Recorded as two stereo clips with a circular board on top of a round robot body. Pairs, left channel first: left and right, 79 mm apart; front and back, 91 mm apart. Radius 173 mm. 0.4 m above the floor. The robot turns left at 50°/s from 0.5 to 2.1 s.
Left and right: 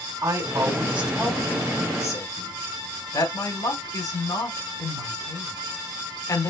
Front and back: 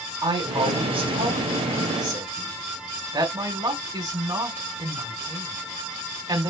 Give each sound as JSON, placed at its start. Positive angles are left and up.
{"t": 0.2, "sound": "a woman speaking", "azimuth_deg": -140, "distance_m": 3.5}